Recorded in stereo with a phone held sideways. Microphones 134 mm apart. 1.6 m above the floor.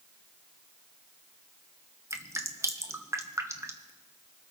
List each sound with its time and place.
2.1 s dripping: 20° right (ahead or behind), 1.2 m